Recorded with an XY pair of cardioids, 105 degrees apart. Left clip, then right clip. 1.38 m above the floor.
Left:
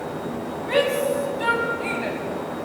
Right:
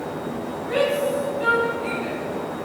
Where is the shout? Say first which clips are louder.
Left 1 dB; 60° left, 8.5 m; by 2.2 s 65° left, 7.5 m.